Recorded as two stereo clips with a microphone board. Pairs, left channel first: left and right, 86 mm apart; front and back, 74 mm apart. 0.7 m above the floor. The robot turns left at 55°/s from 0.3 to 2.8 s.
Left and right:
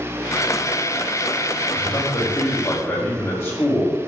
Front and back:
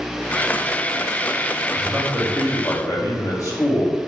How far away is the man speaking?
About 2.5 m.